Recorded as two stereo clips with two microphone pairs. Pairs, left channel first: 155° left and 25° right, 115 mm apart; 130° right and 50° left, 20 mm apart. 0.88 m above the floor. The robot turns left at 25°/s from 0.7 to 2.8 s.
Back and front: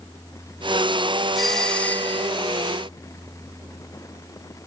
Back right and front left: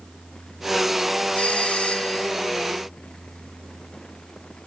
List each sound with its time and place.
1.4 s a doorbell: 115° right; by 2.3 s 140° right